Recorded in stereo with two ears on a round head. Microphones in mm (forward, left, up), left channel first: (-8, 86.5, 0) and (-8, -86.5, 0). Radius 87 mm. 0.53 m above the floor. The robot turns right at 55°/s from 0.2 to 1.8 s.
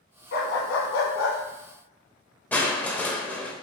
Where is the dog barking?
50° left, 1.1 m; by 1.4 s 110° left, 1.1 m.